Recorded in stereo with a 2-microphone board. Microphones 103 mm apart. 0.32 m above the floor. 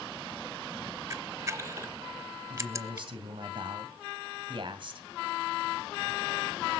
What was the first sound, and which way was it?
A camera shutter, 30° right (ahead or behind).